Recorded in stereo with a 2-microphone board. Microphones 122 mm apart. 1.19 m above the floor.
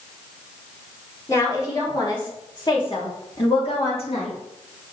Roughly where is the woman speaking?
Left.